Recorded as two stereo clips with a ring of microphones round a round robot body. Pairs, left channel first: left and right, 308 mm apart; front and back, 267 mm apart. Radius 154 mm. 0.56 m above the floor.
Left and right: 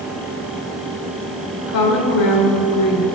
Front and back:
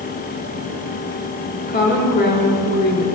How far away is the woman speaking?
About 1.9 m.